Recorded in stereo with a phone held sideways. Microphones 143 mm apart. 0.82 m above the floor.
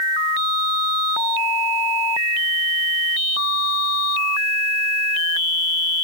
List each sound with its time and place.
Only background noise.